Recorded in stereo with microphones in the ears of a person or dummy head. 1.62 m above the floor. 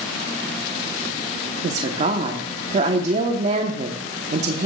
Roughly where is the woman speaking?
Right.